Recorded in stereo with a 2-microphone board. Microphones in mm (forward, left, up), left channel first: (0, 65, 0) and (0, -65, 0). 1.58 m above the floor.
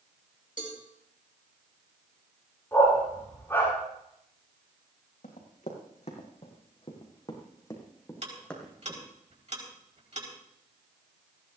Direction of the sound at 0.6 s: 75° left (ahead or behind).